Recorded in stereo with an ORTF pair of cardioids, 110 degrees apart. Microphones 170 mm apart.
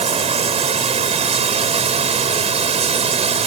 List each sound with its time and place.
0.0 s running water: 40° right